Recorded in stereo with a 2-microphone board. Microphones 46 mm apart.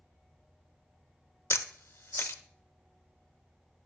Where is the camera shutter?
70° left (ahead or behind), 0.5 m.